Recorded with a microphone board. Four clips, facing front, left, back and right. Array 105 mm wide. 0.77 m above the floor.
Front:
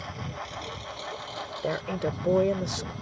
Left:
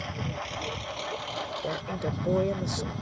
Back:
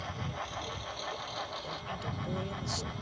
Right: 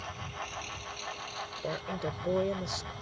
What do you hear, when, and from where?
0.0 s a lawn mower: 75° left
1.6 s a woman speaking: 10° left